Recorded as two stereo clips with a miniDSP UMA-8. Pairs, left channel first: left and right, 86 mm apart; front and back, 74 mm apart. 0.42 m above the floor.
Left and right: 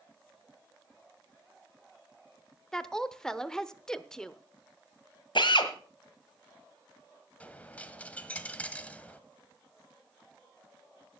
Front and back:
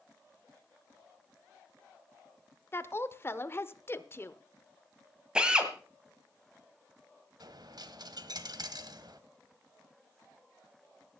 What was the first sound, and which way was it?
A woman speaking, 15° left.